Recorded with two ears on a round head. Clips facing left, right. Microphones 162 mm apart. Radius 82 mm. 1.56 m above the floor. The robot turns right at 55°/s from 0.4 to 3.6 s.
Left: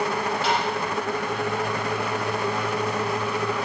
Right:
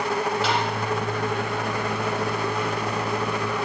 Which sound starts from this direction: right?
Tapping, at 0.4 s.